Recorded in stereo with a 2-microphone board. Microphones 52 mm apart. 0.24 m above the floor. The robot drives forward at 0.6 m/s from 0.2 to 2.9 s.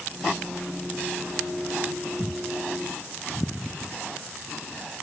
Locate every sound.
2.2 s a thud: 50° left (ahead or behind), 2.5 m